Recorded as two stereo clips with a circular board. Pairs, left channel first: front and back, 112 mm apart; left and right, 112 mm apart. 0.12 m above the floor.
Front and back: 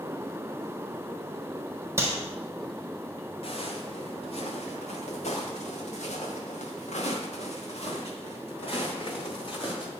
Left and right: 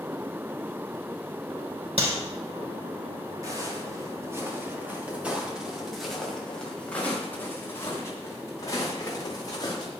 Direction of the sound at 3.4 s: 30° right.